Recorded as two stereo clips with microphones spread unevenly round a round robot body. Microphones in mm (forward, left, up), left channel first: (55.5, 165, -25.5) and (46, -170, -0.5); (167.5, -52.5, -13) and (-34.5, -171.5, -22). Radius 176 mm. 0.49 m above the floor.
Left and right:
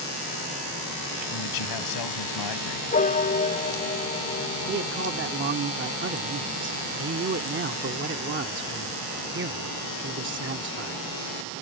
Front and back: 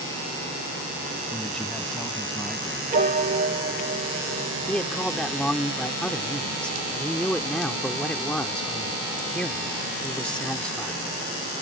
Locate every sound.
1.3 s a man speaking: 120° left
2.9 s a piano: 155° left
4.7 s a man speaking: 55° right